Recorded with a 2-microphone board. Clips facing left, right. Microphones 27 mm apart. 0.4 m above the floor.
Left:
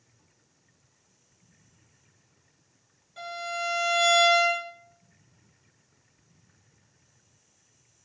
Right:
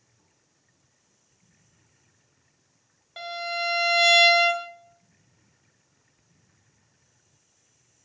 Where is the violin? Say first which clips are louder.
Right 3 dB; 50° right (ahead or behind), 0.5 m.